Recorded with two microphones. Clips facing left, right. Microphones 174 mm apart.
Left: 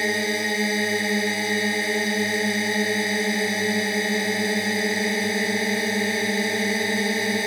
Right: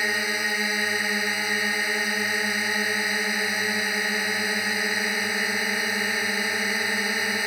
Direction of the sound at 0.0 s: 25° left (ahead or behind).